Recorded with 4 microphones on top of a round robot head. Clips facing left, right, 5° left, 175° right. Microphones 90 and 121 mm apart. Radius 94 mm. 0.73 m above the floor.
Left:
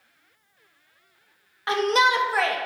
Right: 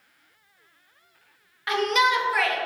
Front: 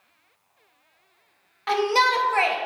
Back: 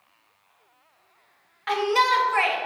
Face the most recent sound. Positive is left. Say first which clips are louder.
# left 1 dB, front 1 dB
turn(degrees=45)